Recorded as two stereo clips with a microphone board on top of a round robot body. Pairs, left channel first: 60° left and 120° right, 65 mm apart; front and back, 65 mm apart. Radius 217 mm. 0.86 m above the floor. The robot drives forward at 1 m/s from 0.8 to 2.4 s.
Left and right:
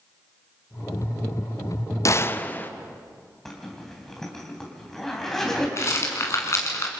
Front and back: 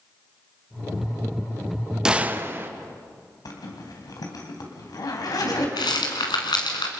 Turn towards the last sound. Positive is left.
turn(degrees=10)